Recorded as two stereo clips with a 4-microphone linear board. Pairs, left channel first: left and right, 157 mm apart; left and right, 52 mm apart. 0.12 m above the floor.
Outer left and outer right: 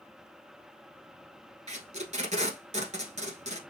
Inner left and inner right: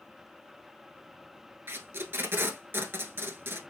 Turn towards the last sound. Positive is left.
turn(degrees=-50)  # may be behind; listen again after turning